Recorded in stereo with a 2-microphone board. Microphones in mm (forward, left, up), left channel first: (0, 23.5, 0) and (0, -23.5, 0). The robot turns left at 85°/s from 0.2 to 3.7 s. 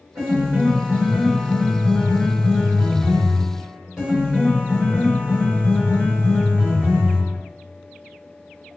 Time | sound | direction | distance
0.1 | a piano | 75° right | 1.4 m